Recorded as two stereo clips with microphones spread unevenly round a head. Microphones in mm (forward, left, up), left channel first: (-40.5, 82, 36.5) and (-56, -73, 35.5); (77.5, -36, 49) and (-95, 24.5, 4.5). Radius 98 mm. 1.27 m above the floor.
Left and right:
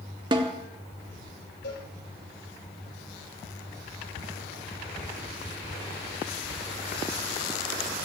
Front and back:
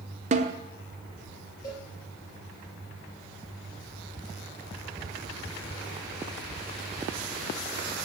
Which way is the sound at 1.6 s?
50° left.